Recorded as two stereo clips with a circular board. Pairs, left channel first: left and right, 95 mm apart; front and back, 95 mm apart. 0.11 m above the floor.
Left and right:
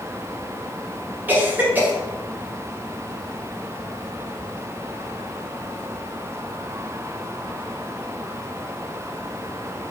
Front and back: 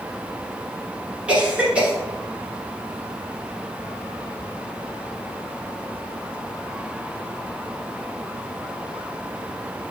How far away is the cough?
About 1.1 m.